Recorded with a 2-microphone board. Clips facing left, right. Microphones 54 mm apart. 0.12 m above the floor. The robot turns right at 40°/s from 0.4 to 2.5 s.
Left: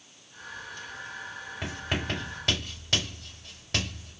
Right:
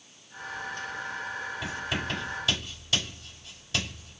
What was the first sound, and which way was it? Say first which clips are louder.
Writing: left 3 dB; 40° left (ahead or behind).